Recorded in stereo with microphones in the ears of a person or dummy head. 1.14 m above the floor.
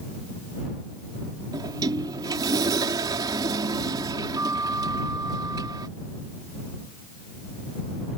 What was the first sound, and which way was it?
A sliding door, 25° right (ahead or behind).